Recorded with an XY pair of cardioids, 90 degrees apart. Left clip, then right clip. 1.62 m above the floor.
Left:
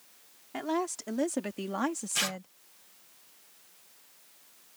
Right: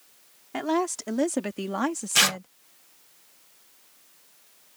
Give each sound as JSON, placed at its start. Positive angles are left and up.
{"t": 0.5, "sound": "a woman speaking", "azimuth_deg": -40}
{"t": 2.1, "sound": "tearing paper", "azimuth_deg": -70}